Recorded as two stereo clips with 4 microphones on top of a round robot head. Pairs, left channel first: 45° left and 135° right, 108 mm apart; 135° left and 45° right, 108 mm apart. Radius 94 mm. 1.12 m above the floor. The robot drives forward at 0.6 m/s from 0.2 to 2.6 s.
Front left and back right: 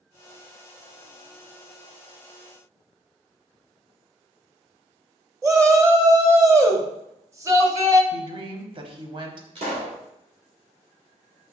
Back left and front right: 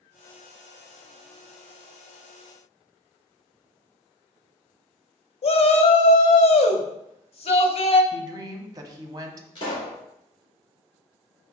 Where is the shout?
165° left, 1.0 m.